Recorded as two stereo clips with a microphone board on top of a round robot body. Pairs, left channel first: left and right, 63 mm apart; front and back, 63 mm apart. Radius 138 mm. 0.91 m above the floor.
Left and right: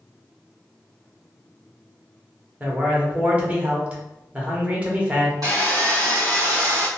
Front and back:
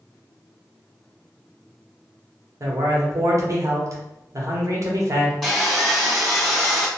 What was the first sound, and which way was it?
A man speaking, 155° right.